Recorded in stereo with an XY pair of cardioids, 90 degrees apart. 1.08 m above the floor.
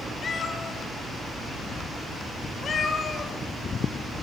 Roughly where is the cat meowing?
Ahead left.